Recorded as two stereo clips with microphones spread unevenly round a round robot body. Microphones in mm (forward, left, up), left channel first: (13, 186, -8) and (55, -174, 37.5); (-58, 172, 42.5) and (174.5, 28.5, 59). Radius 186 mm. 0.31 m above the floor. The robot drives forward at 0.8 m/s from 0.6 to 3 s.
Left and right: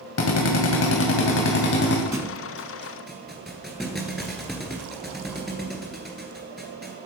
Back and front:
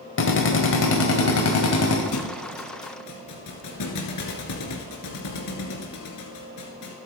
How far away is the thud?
About 0.9 m.